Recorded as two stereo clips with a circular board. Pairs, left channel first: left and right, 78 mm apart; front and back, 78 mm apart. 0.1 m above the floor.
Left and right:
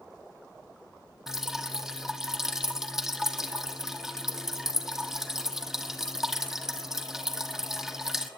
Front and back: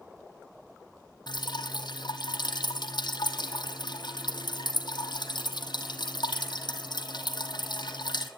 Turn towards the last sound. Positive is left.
turn(degrees=-5)